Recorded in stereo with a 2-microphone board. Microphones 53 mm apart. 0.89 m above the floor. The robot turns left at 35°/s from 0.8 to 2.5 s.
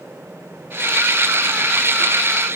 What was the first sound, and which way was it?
Only background noise.